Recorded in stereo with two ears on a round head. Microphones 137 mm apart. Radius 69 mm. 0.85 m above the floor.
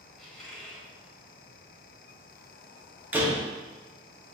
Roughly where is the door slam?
Centre.